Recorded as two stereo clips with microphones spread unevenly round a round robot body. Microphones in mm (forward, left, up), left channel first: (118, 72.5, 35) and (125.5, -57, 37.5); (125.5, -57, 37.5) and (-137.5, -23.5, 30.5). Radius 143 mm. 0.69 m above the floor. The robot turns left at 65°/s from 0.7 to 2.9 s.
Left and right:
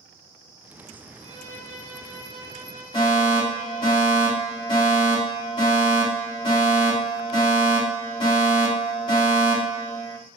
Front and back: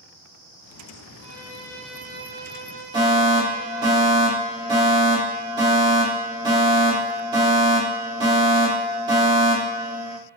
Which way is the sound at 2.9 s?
110° left.